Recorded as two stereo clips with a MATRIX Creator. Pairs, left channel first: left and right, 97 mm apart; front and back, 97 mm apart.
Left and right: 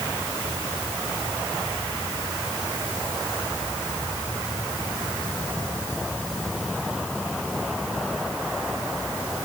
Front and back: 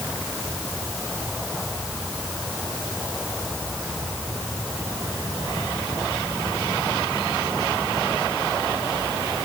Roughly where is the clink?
No clink in this recording.